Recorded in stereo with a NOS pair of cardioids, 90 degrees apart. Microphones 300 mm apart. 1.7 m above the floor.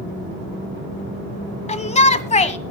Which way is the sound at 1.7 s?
25° left.